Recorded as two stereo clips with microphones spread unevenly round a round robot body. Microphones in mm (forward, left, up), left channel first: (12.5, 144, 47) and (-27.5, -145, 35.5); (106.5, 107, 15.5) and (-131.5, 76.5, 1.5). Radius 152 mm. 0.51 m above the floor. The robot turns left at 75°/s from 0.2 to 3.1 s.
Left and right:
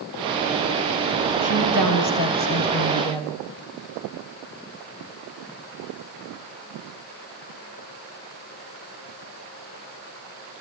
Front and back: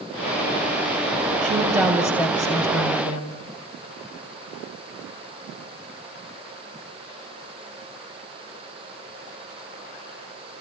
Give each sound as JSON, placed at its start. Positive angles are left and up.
{"t": 1.4, "sound": "a woman speaking", "azimuth_deg": 135, "distance_m": 3.5}